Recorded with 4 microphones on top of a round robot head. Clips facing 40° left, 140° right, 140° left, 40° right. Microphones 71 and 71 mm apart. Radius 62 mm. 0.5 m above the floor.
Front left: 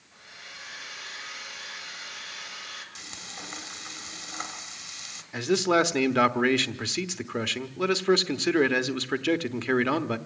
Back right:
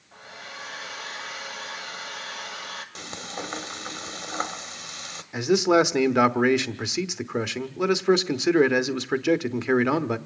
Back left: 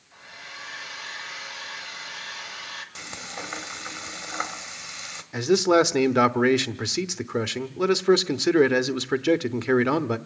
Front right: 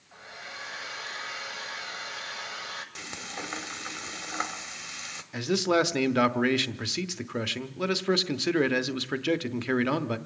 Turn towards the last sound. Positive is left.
turn(degrees=165)